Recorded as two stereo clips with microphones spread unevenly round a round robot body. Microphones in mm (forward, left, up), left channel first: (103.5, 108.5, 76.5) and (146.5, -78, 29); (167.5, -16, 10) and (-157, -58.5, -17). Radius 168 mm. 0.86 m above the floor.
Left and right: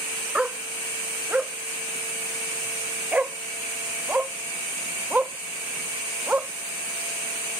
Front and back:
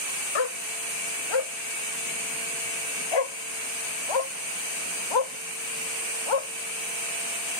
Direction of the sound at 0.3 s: 10° left.